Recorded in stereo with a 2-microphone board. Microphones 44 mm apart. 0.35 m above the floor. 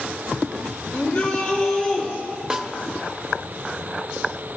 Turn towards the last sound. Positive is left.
turn(degrees=-20)  # may be behind; listen again after turning